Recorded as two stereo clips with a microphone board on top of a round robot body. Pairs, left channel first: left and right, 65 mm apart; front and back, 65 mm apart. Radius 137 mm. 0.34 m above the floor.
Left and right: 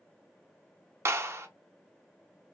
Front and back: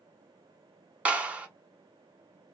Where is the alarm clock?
I don't hear an alarm clock.